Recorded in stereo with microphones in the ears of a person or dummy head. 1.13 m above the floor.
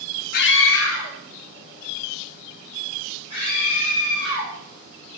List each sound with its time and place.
0.3 s a scream: 45° left (ahead or behind), 0.6 m; by 4.5 s 85° left, 7 m